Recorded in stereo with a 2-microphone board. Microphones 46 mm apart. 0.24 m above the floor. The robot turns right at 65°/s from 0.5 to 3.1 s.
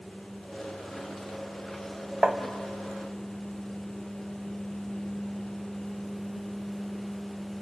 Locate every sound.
2.2 s tapping: 20° right (ahead or behind), 1.2 m; by 2.4 s 15° right (ahead or behind), 1.2 m